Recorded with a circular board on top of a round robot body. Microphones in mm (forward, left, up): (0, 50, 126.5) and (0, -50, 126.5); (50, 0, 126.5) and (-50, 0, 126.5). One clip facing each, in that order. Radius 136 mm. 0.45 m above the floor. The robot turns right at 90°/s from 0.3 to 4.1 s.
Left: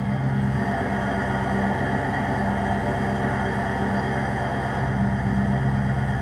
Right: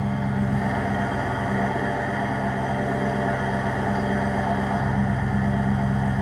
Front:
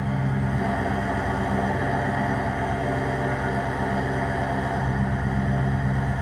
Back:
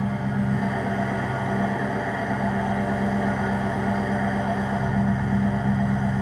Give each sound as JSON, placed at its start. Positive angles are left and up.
{"t": 0.0, "sound": "an engine running", "azimuth_deg": -115, "distance_m": 0.9}